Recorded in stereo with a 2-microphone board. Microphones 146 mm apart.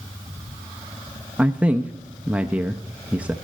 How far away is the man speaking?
About 0.5 m.